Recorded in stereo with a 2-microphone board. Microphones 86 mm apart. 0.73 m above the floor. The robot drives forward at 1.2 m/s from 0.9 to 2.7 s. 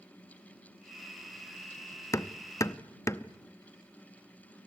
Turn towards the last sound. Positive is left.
turn(degrees=35)  # may be behind; listen again after turning